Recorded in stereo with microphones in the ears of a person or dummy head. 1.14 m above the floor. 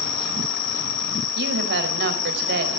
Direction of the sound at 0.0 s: 30° left (ahead or behind).